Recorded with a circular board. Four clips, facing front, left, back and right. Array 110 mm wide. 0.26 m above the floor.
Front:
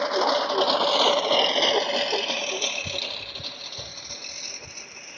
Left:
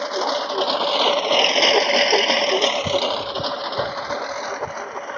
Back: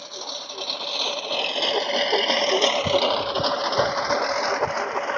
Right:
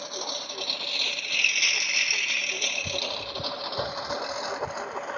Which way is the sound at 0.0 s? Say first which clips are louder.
Left 14 dB, front 15 dB; 35° left.